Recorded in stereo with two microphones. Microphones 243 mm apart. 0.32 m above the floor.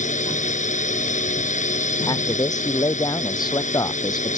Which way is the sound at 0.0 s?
30° left (ahead or behind).